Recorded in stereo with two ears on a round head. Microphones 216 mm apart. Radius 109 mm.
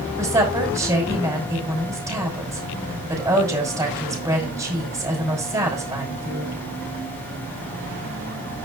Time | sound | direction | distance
0.2 | a woman speaking | 15° right (ahead or behind) | 6 m